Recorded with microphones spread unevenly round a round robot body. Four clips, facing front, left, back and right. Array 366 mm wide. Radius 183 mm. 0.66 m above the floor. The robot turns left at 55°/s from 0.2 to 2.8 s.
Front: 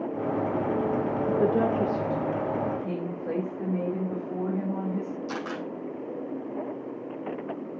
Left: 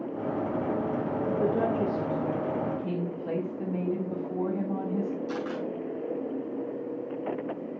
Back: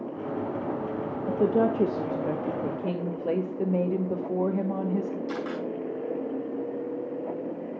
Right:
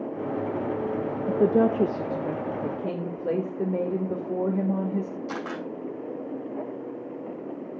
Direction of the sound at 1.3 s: 95° right.